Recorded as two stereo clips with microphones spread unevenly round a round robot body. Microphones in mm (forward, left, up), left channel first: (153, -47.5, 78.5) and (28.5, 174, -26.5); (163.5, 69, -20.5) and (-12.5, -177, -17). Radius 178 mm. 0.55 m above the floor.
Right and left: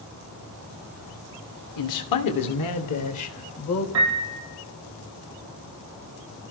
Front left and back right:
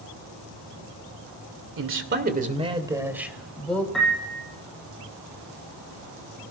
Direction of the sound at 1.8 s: 90° right.